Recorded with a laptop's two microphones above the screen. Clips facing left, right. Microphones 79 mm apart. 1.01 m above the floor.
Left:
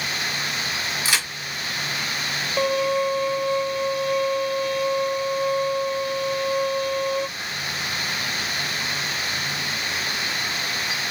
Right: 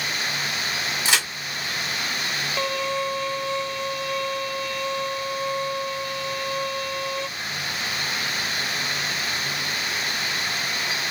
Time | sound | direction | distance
1.1 | a crack | 20° right (ahead or behind) | 3 m
2.6 | a violin | 15° left (ahead or behind) | 0.7 m